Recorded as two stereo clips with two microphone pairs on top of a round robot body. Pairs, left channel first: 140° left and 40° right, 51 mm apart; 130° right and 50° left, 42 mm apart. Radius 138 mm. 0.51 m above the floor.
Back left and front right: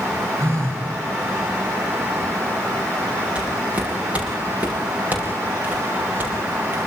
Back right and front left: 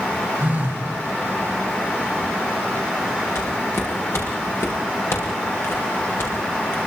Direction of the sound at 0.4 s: 10° right.